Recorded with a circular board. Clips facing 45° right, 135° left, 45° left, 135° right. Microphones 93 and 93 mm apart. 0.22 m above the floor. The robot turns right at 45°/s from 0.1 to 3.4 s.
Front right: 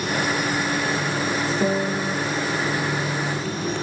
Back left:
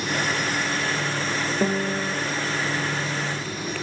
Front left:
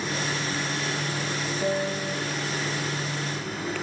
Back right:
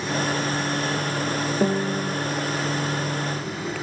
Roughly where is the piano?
Behind right.